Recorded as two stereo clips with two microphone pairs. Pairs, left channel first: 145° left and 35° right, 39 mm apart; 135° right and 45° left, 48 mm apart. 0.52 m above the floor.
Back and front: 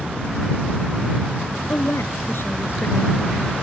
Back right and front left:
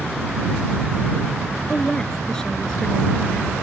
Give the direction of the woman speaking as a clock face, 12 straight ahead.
7 o'clock.